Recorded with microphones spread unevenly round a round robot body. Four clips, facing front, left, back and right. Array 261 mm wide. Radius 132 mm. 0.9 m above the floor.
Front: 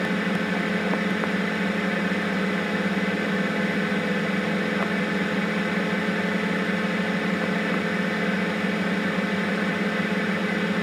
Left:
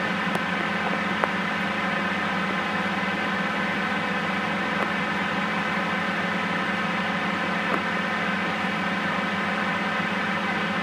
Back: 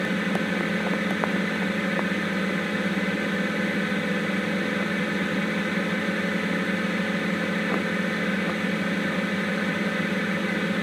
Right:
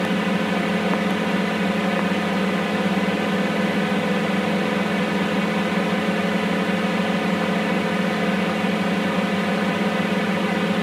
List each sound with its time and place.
0.0 s a drone: 90° right